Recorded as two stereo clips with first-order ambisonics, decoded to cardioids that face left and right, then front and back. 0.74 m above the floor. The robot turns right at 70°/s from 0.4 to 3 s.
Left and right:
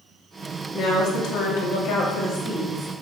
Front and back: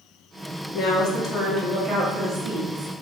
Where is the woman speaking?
35° left, 1.2 m; by 2.9 s 170° right, 1.2 m.